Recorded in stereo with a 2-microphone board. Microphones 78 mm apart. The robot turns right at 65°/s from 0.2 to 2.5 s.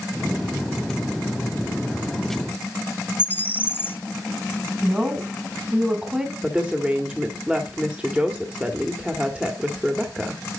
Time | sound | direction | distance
3.2 | a bird | 25° left (ahead or behind) | 0.8 m
4.8 | a woman speaking | 15° right (ahead or behind) | 2 m
6.4 | a woman speaking | 15° right (ahead or behind) | 1.6 m